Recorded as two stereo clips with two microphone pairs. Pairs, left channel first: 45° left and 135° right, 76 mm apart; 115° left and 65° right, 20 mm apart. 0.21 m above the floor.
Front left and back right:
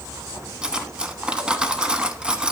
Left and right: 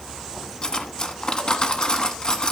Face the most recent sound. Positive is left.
turn(degrees=155)